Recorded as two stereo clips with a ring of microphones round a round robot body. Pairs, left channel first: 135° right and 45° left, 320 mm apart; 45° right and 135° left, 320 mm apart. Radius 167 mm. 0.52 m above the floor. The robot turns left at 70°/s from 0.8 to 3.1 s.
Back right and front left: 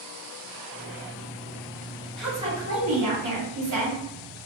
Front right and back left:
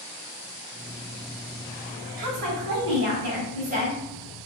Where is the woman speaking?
135° left, 1.8 m; by 4.0 s 70° left, 1.8 m.